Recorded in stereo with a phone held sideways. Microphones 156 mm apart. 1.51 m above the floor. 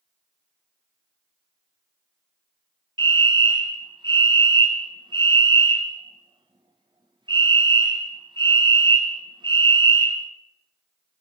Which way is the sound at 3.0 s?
30° right (ahead or behind).